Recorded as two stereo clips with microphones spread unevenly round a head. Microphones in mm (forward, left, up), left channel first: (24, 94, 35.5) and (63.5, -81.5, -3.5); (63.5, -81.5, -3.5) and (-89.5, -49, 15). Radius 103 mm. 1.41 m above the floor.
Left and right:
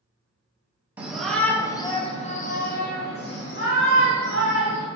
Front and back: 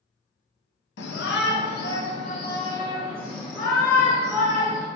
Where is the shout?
5° left, 1.0 m; by 4.8 s 90° left, 2 m.